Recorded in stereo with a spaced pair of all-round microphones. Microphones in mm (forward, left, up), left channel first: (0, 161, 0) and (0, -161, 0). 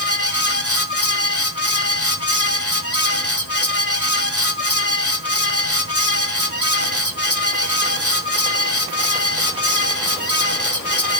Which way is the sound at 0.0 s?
45° left (ahead or behind).